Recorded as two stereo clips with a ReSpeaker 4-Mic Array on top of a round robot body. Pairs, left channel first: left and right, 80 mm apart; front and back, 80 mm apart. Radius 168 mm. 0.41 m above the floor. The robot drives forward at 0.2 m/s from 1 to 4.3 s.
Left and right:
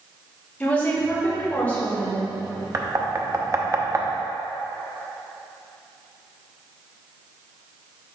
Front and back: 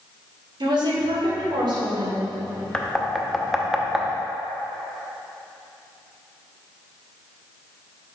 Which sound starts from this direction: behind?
A woman speaking, at 0.6 s.